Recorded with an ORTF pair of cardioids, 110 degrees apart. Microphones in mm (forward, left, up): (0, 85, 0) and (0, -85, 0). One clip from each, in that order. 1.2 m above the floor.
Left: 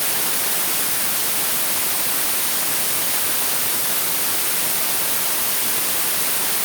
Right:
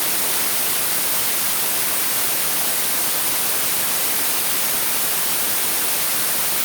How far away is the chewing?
No chewing in this recording.